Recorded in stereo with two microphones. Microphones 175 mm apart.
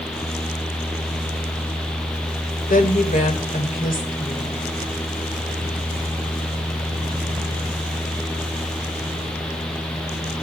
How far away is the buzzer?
I don't hear a buzzer.